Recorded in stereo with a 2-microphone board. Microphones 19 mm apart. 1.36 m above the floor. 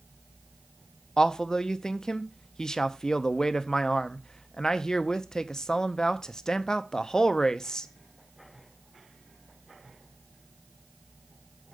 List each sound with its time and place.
1.2 s a man speaking: 35° left (ahead or behind), 0.5 m